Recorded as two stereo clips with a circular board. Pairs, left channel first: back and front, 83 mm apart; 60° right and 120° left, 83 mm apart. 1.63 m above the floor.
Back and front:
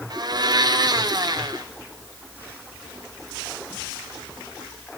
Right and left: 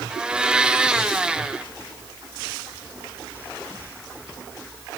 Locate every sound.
0.1 s a blender: 40° left, 1.2 m